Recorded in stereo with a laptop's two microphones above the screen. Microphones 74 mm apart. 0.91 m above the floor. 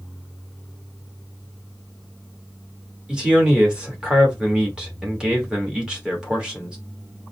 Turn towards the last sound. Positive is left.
turn(degrees=-10)  # may be behind; listen again after turning